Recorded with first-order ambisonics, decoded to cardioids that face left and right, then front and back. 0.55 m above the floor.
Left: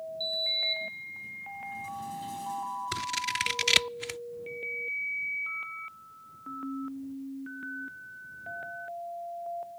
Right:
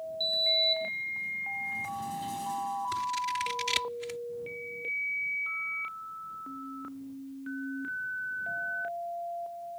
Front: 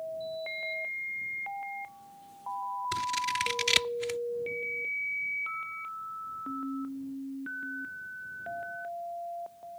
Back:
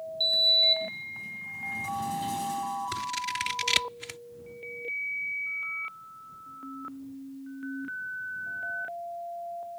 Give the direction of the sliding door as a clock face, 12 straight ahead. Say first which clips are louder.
Right 3 dB, back 14 dB; 6 o'clock.